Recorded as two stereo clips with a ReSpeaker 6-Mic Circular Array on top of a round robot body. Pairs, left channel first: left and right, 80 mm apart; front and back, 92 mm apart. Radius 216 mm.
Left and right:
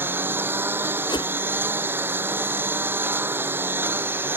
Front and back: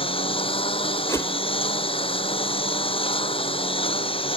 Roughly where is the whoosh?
Ahead left.